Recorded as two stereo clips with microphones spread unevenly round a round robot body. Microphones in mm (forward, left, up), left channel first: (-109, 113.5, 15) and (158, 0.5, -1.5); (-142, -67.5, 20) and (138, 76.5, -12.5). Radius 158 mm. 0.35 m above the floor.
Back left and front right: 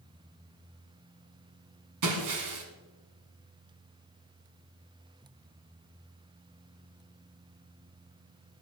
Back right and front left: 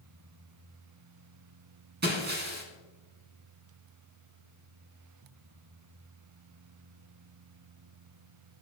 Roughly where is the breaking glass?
Ahead right.